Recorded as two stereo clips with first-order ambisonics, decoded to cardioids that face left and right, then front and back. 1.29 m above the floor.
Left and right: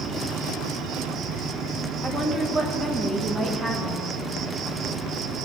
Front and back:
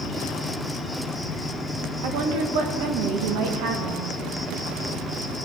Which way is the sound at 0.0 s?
95° right.